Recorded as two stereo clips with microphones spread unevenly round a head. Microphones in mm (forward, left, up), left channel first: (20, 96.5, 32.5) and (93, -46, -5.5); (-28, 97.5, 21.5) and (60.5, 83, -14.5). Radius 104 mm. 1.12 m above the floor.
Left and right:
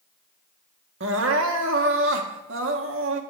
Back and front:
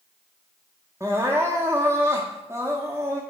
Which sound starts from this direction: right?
Crying, at 1.0 s.